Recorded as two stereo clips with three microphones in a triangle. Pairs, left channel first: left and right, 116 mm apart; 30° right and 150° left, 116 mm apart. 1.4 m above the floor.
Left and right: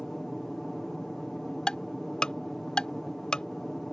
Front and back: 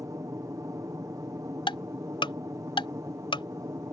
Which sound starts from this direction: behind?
An aircraft, at 0.0 s.